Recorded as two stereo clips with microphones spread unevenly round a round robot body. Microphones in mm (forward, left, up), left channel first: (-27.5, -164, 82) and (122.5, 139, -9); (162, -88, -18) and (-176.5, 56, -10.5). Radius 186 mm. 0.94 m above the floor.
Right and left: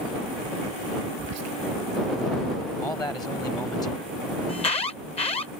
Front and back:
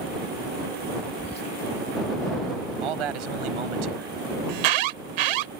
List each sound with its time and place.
1.2 s whispering: 50° left
2.8 s a man speaking: 160° left
4.5 s an alarm: 170° left